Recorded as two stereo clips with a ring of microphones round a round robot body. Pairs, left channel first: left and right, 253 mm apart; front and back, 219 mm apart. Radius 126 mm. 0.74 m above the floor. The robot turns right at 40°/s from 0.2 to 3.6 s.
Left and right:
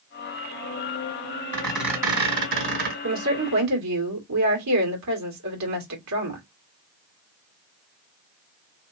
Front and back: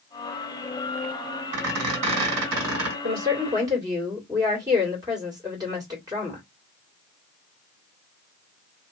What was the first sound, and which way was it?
A squeak, 170° left.